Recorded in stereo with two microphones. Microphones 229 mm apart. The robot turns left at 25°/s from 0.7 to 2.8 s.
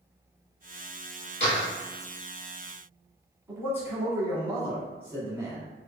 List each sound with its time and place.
1.4 s a door slam: 30° left (ahead or behind), 2.0 m; by 1.7 s 25° left (ahead or behind), 2.0 m
3.5 s a man speaking: 10° right (ahead or behind), 1.5 m